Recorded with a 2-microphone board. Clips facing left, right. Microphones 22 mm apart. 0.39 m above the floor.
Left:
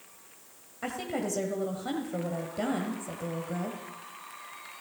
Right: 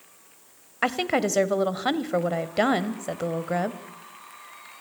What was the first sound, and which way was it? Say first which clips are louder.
A woman speaking: right 9 dB; 55° right (ahead or behind).